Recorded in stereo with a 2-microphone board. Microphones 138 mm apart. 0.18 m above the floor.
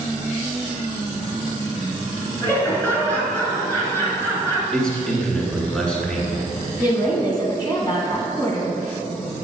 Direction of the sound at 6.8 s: 25° left (ahead or behind).